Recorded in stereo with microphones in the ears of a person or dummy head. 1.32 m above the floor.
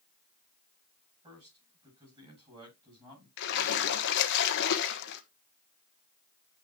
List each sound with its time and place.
1.2 s a man speaking: 25° right (ahead or behind), 8 m
3.4 s a splash: 65° left (ahead or behind), 1.2 m